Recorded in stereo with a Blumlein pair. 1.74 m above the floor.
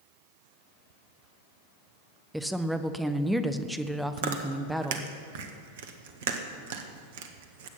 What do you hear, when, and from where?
2.3 s a woman speaking: 5° right, 0.8 m
4.2 s chewing: 55° right, 1.2 m